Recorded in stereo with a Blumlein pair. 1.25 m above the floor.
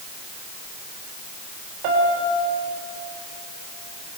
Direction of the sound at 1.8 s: 45° right.